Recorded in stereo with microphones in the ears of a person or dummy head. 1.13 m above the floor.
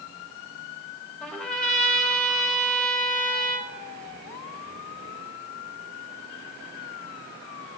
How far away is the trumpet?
About 1.6 m.